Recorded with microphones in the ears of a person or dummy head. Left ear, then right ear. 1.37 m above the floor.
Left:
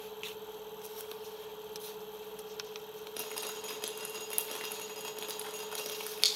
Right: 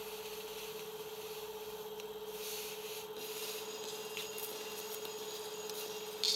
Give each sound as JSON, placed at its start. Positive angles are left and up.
{"t": 3.2, "sound": "dripping", "side_deg": 30, "distance_m": 0.5}